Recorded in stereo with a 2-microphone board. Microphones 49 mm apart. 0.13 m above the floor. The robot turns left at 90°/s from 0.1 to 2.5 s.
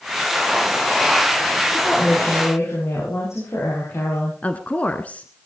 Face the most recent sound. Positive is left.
turn(degrees=30)  # may be behind; listen again after turning